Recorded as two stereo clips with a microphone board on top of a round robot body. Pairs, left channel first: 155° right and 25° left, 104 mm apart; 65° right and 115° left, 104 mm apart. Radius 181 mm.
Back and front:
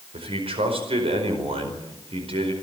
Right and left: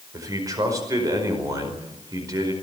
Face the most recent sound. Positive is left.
turn(degrees=55)